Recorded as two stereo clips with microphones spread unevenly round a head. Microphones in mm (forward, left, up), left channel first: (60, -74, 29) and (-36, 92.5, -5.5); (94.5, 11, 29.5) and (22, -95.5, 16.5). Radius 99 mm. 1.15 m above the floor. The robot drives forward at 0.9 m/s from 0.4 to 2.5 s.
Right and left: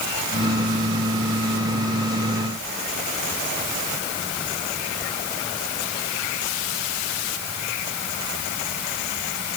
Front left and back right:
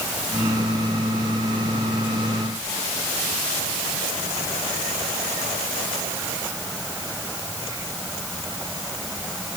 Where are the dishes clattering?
I don't hear dishes clattering.